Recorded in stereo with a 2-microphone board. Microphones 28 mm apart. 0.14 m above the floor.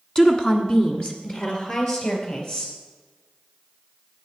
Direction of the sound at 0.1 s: 20° left (ahead or behind).